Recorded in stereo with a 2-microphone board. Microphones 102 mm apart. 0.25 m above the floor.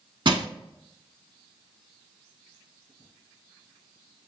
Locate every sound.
0.2 s crushing: 55° right (ahead or behind), 0.6 m